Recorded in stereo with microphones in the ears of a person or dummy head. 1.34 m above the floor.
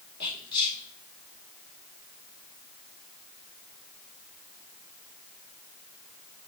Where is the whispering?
30° left (ahead or behind), 3.5 m.